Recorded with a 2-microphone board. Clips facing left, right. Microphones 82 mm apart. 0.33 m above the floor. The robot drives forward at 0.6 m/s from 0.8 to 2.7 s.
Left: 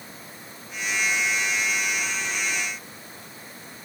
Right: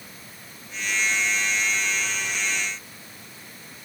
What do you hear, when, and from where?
Only background noise.